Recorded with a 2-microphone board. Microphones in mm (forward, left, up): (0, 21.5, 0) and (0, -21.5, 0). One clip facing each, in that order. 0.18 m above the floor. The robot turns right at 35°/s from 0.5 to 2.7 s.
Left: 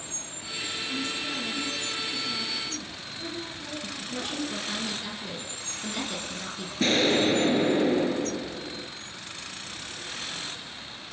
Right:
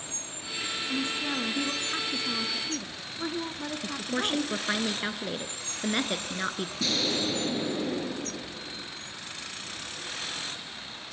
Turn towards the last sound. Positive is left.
turn(degrees=45)  # may be behind; listen again after turning